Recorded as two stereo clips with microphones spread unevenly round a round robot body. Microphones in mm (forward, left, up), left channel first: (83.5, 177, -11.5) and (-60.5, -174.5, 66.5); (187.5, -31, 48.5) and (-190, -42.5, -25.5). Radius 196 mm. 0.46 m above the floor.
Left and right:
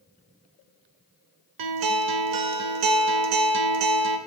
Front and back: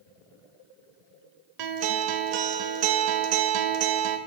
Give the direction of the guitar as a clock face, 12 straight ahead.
5 o'clock.